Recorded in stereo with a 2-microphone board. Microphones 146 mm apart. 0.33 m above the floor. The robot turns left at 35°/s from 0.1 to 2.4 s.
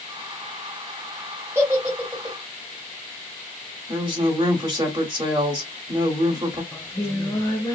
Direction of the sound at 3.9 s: 35° right (ahead or behind).